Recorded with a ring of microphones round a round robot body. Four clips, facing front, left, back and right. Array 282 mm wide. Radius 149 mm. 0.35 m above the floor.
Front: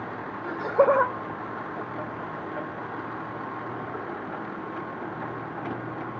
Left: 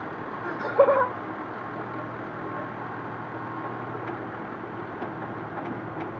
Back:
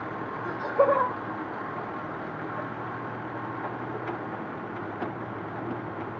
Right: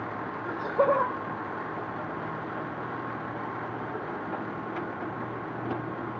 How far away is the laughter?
About 1.1 m.